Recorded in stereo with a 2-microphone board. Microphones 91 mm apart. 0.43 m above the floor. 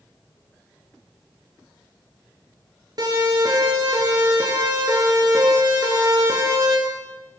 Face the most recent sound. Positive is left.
turn(degrees=-40)  # may be behind; listen again after turning